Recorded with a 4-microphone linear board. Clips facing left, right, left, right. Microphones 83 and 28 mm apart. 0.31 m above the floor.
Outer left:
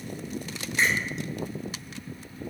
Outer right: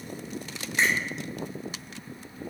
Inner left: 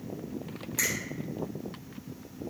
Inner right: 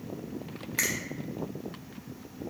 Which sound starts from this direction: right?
A finger snap, at 0.8 s.